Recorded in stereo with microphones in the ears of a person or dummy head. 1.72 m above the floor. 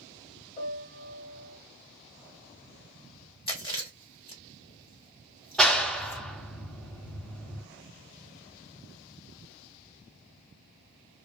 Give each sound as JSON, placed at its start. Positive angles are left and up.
{"t": 0.6, "sound": "a piano", "side_deg": 40, "distance_m": 1.1}
{"t": 3.5, "sound": "chewing", "side_deg": 25, "distance_m": 0.8}
{"t": 5.6, "sound": "a clap", "side_deg": 0, "distance_m": 0.6}